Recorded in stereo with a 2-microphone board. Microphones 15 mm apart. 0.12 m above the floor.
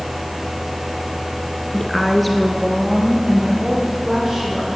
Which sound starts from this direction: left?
A woman speaking, at 1.7 s.